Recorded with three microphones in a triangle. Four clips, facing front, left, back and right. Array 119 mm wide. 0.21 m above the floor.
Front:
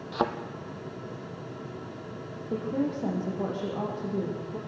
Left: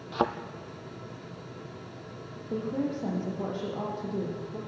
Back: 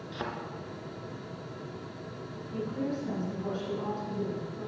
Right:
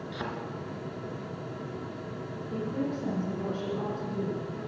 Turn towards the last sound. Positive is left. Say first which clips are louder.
# left 2 dB, front 4 dB
turn(degrees=25)